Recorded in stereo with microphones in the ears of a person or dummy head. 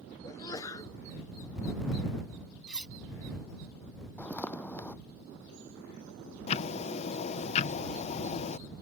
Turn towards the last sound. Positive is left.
turn(degrees=35)  # may be behind; listen again after turning